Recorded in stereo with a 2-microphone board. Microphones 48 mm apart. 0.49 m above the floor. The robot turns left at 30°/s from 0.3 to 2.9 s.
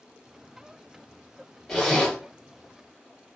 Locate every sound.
1.7 s a zipper: 10° left (ahead or behind), 1.4 m; by 2.2 s 15° left (ahead or behind), 1.4 m